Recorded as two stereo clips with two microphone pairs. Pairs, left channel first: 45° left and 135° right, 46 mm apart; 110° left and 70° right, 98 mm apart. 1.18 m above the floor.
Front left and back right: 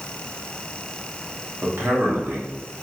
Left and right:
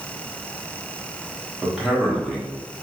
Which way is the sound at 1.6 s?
145° right.